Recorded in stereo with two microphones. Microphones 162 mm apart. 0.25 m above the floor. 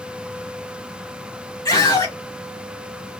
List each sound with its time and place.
1.6 s a scream: 20° left (ahead or behind), 2 m